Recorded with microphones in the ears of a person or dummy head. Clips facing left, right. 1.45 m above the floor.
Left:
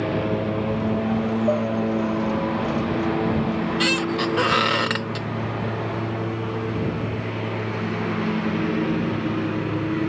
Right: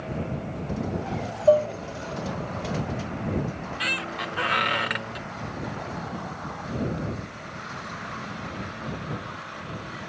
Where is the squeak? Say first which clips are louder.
Left 12 dB; 60° left (ahead or behind).